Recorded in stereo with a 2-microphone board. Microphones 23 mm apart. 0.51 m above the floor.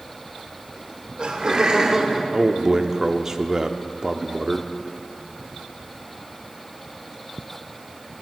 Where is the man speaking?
25° right (ahead or behind), 0.7 m.